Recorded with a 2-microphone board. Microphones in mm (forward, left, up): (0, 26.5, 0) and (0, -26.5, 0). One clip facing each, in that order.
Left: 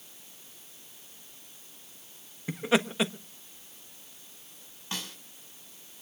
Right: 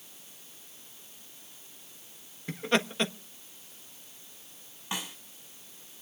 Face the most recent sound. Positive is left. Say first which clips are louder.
# right 2 dB
turn(degrees=-15)  # may be behind; listen again after turning